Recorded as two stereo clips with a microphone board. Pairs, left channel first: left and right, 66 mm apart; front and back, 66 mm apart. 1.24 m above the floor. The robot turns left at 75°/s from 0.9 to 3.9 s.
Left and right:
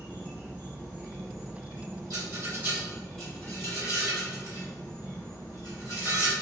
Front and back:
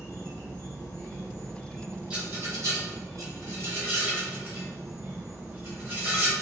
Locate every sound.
0.0 s an insect: 20° right, 2.0 m; by 6.4 s 115° left, 2.0 m
2.1 s a rattle: 105° right, 1.7 m; by 6.3 s 120° left, 1.7 m